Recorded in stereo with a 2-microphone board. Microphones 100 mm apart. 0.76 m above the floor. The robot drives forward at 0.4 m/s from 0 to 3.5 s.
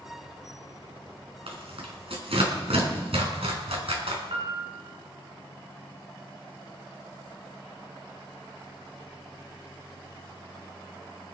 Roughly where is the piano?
Right.